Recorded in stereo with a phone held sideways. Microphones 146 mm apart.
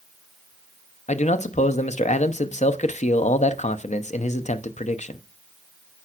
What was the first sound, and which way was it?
A man speaking, 55° left (ahead or behind).